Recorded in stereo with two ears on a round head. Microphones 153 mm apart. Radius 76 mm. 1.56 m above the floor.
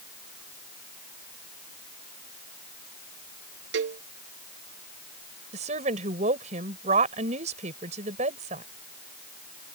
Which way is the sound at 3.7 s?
80° right.